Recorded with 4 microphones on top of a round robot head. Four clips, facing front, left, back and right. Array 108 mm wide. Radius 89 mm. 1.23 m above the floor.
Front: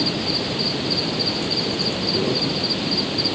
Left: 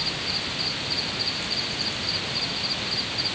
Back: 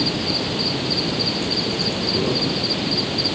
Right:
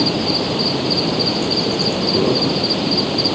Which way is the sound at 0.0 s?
90° right.